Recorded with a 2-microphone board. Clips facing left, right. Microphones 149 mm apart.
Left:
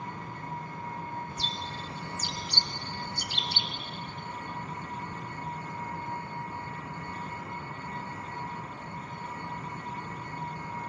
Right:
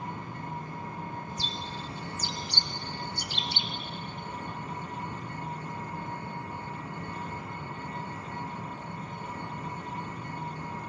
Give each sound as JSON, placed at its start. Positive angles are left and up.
{"t": 0.0, "sound": "an engine running", "side_deg": -30, "distance_m": 9.5}
{"t": 1.3, "sound": "a bird", "side_deg": 65, "distance_m": 1.5}